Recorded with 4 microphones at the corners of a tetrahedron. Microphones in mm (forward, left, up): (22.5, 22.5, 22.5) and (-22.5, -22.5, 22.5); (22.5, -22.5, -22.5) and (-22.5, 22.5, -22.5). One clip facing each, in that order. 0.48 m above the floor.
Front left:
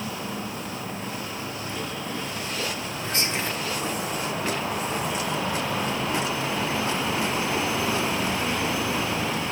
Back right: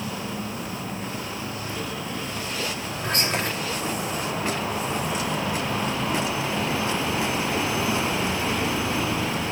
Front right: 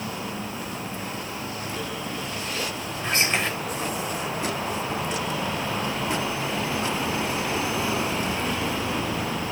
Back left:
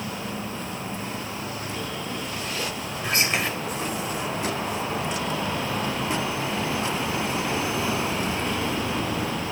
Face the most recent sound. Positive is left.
turn(degrees=-140)